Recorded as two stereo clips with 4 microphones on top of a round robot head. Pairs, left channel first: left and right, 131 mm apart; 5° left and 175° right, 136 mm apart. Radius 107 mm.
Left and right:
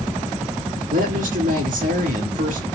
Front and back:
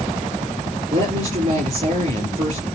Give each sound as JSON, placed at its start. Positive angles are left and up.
{"t": 0.9, "sound": "a woman speaking", "azimuth_deg": -120, "distance_m": 3.0}